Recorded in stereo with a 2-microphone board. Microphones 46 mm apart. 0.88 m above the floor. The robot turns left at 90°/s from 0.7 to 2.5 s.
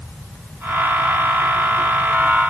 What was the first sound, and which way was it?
Only background noise.